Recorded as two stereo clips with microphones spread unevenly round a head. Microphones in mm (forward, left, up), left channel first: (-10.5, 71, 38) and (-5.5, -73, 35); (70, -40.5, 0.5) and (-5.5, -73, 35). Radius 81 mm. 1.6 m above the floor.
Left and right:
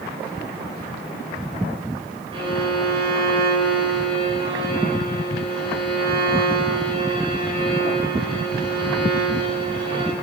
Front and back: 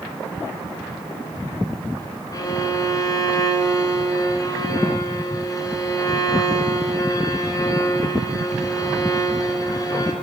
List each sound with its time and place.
2.3 s a violin: 30° right, 4 m